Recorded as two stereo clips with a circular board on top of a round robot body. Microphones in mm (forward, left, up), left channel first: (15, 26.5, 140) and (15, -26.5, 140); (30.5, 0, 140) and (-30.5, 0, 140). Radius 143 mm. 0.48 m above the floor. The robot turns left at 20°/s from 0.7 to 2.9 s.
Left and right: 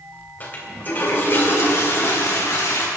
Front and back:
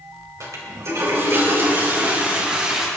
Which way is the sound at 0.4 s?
145° left.